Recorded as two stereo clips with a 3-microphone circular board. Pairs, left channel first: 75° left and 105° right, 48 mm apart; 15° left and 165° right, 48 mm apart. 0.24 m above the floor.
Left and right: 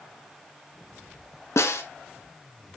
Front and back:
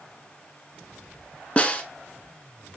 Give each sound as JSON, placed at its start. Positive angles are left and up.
{"t": 1.6, "sound": "a snare drum", "azimuth_deg": 75, "distance_m": 0.6}